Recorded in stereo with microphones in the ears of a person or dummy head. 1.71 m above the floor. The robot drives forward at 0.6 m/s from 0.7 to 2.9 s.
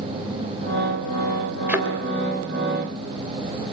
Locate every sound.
1.7 s a thud: 5° right (ahead or behind), 3 m